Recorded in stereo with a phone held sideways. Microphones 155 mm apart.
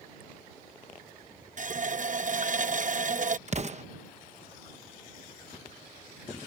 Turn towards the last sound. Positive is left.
turn(degrees=-45)  # may be behind; listen again after turning